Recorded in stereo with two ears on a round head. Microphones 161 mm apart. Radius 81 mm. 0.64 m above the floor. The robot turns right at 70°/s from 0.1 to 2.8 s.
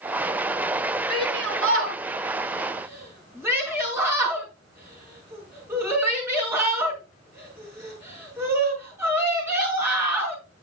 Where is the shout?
50° right (ahead or behind), 6.5 m; by 10.4 s 15° right (ahead or behind), 6.5 m.